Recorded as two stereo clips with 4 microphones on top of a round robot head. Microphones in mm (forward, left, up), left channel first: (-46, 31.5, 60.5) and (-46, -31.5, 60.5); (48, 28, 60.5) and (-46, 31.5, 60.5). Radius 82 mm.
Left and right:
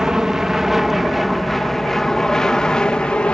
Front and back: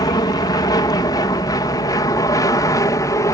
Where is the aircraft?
15° right; by 3.4 s 20° left.